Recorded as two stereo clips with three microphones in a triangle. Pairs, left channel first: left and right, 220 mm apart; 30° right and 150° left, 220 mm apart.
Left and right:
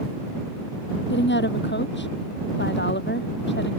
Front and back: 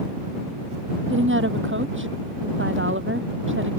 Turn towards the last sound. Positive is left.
turn(degrees=125)